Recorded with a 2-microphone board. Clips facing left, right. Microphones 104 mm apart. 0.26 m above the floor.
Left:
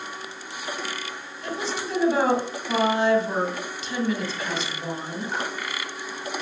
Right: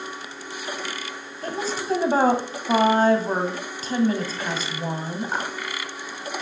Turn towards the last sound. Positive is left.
turn(degrees=-45)  # may be behind; listen again after turning